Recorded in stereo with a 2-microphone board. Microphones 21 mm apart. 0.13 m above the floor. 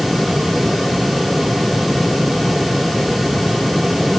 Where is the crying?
No crying in this recording.